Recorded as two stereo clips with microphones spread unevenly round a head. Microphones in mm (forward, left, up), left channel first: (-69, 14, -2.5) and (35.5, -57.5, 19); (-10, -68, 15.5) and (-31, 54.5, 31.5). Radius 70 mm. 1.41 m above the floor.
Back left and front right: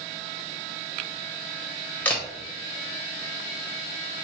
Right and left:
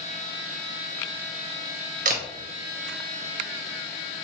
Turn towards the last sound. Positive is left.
turn(degrees=65)